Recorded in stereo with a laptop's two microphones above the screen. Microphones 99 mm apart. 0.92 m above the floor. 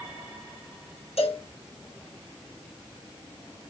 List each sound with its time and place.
1.2 s a cowbell: 85° left, 5 m